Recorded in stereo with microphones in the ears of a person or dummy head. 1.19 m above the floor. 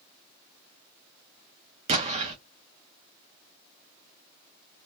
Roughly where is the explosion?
Right.